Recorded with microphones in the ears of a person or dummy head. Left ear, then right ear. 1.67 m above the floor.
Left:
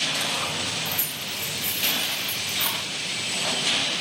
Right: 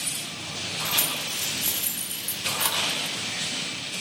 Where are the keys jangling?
65° right (ahead or behind), 6.5 m; by 2.8 s 70° right (ahead or behind), 8.5 m.